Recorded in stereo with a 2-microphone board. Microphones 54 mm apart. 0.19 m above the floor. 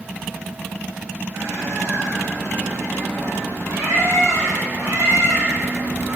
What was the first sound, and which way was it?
A bird, 75° right (ahead or behind).